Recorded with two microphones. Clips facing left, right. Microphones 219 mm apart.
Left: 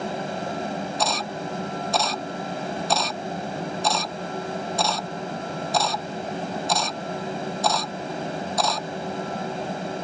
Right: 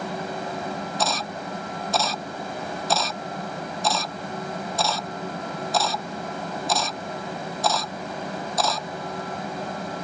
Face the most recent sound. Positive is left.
turn(degrees=0)  # may be behind; listen again after turning